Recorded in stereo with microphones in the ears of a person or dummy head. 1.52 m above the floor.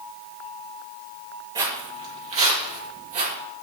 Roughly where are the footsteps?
Right.